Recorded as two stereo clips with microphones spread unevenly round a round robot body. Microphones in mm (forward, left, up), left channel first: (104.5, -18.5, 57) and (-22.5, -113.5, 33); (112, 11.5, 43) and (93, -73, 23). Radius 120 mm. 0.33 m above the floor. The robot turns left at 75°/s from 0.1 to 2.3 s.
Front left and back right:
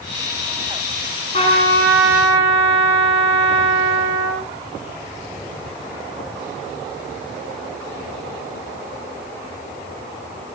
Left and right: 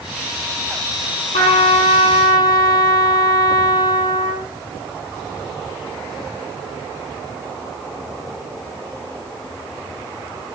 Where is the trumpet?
105° left, 7.5 m; by 4.5 s 35° left, 7.5 m.